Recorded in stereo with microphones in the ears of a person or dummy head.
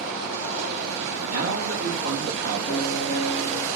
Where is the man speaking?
60° right (ahead or behind), 2.5 m.